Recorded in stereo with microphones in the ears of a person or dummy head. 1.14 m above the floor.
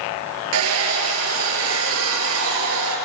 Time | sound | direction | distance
0.5 | a hair dryer | 75° right (ahead or behind) | 4.5 m